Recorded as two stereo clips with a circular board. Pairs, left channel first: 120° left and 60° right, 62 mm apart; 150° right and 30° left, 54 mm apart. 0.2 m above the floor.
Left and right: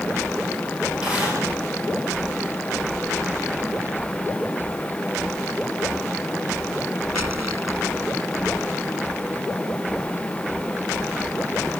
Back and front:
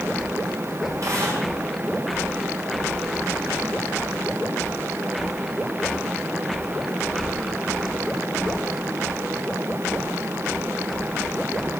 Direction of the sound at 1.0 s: 15° left.